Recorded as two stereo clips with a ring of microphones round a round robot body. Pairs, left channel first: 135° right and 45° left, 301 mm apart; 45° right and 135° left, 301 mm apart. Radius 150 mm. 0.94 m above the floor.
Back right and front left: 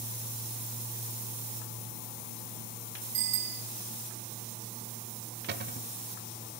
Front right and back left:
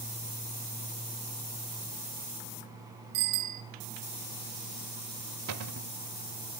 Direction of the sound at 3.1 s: 110° left.